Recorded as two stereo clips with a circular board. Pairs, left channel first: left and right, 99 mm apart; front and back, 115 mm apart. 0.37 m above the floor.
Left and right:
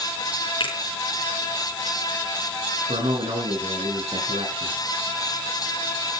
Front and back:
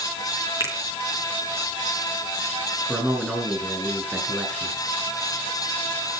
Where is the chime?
No chime in this recording.